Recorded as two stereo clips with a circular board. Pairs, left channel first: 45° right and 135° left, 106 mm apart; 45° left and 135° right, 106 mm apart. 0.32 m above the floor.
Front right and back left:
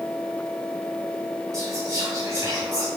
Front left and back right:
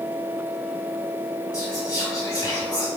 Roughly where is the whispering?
Left.